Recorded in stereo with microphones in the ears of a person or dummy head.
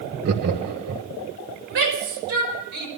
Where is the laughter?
55° right (ahead or behind), 1.1 m.